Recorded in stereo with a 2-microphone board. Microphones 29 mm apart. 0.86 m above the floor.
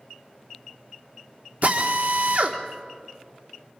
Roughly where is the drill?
Right.